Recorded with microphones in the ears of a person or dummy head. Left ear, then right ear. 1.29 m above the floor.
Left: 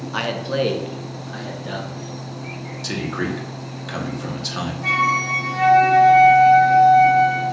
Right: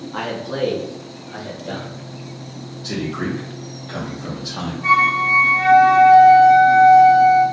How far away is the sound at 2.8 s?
About 1.3 m.